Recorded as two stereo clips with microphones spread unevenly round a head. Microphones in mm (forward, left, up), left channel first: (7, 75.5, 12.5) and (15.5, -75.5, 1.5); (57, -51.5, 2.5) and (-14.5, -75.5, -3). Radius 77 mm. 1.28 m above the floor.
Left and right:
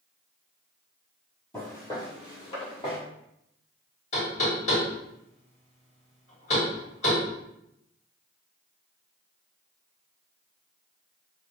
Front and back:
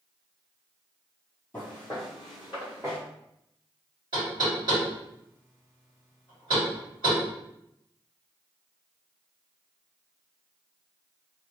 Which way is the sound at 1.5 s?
50° left.